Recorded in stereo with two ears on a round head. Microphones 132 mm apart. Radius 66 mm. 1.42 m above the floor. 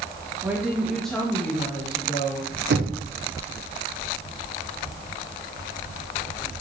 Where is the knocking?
85° right, 0.8 m.